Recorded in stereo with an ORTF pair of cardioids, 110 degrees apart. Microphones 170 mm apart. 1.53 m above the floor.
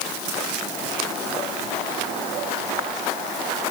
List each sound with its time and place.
Only background noise.